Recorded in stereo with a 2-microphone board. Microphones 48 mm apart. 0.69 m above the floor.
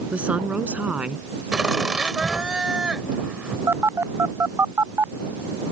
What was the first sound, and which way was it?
A woman speaking, 25° right (ahead or behind).